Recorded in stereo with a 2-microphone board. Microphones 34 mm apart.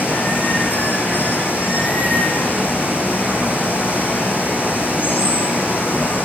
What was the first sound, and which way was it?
Running water, 80° left.